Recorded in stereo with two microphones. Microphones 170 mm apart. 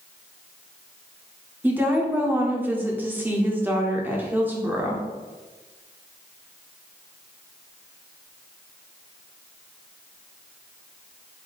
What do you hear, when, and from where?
1.6 s a woman speaking: 10° right (ahead or behind), 0.9 m